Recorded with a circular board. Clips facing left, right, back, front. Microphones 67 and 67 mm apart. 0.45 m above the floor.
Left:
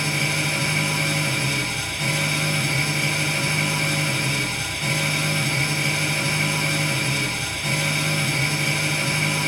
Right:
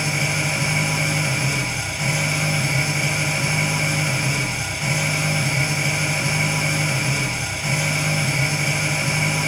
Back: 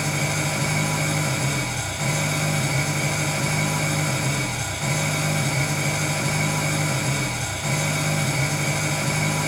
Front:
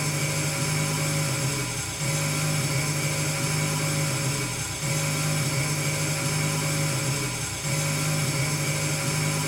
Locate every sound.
0.0 s an engine running: 165° right, 1.9 m